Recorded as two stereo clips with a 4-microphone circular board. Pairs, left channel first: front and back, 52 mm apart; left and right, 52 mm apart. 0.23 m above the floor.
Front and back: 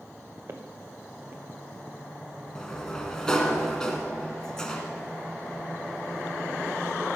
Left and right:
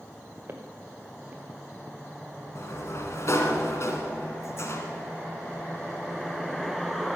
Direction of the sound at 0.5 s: 140° right.